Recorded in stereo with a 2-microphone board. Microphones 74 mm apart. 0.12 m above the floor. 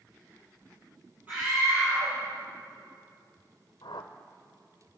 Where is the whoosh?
80° left, 0.9 m.